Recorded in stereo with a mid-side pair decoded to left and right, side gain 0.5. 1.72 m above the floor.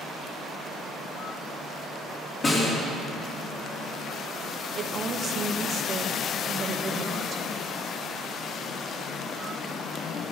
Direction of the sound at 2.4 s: 35° left.